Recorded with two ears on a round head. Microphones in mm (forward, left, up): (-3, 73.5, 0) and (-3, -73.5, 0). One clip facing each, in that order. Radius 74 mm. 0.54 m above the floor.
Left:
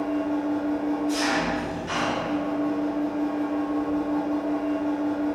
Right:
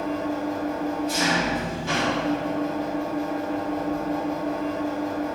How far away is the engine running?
About 0.9 m.